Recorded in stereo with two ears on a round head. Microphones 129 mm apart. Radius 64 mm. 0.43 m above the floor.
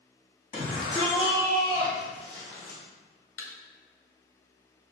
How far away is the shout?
About 1.9 m.